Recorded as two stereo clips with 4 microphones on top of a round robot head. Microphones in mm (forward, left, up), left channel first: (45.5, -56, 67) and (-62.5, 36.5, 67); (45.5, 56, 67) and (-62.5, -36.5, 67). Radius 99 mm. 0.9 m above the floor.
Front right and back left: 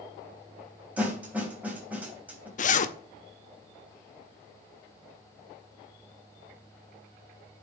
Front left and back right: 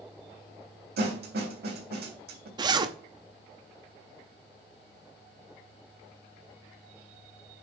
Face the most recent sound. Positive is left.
turn(degrees=-75)